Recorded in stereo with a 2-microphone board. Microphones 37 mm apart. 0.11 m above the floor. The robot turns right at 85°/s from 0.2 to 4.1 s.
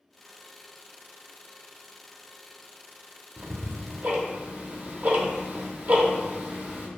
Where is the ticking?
65° right (ahead or behind), 0.5 m; by 6.9 s 45° right (ahead or behind), 0.5 m.